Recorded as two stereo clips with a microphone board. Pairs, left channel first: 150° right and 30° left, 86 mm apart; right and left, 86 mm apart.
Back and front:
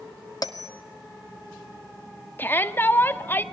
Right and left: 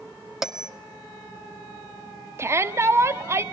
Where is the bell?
175° left, 1.6 m.